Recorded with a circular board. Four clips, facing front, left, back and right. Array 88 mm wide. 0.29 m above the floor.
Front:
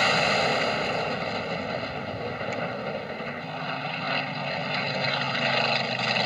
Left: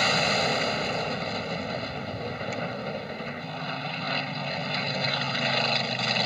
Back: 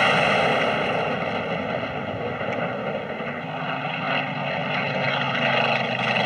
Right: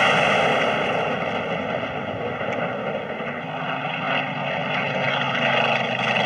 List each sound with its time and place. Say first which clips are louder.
0.0 s an aircraft: right 7 dB, back 4 dB; 115° right